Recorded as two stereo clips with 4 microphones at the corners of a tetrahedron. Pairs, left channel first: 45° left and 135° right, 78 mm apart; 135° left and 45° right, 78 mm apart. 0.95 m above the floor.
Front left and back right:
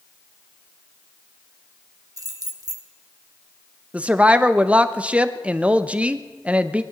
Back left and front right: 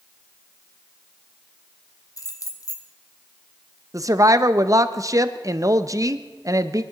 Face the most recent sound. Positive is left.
turn(degrees=-65)